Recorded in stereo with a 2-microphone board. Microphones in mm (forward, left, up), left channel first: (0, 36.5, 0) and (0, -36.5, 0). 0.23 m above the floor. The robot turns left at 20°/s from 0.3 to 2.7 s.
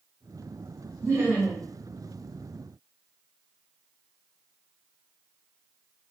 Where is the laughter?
35° right (ahead or behind), 1.5 m; by 1.7 s 25° right (ahead or behind), 1.5 m.